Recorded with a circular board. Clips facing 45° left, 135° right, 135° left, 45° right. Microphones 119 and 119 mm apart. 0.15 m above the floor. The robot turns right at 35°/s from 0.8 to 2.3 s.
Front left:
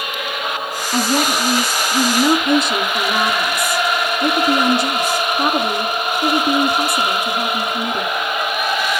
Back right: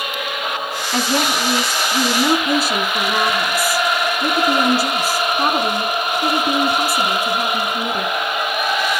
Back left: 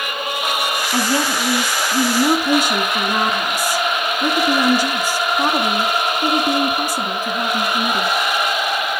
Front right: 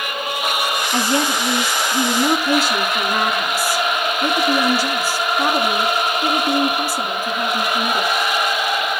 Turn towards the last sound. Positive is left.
turn(degrees=155)